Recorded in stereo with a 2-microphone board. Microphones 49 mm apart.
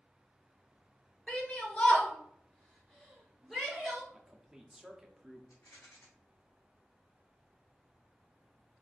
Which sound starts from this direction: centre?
A man speaking, at 4.1 s.